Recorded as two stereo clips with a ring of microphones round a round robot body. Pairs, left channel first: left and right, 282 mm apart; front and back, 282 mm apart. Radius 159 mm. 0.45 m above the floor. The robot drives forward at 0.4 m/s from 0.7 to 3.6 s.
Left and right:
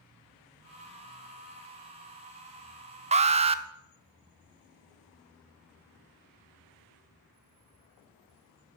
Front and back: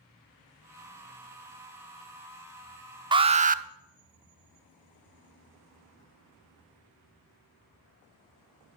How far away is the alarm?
About 0.7 m.